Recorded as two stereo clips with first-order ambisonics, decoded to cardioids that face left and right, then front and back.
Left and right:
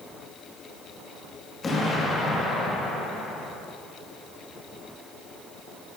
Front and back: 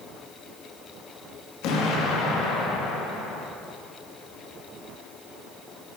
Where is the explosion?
20° left, 1.2 m.